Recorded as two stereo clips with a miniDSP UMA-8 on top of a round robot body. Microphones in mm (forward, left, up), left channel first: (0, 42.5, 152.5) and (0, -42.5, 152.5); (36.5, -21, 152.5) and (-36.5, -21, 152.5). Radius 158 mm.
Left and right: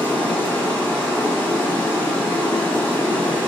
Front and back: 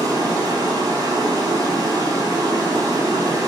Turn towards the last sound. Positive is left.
turn(degrees=160)